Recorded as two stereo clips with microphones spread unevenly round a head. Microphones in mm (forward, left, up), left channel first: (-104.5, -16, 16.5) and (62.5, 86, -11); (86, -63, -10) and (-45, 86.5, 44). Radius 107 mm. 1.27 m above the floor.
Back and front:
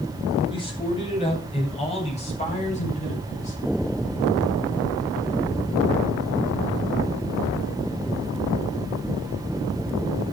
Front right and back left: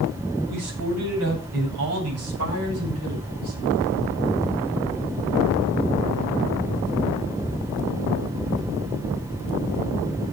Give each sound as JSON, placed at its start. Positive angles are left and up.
{"t": 0.5, "sound": "a man speaking", "azimuth_deg": 150, "distance_m": 9.5}